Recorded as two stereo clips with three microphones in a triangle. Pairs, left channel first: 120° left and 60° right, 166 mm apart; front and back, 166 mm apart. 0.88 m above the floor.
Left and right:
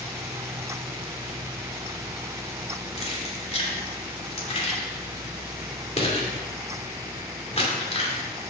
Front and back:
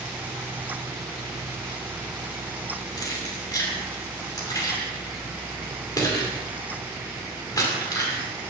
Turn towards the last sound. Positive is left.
turn(degrees=70)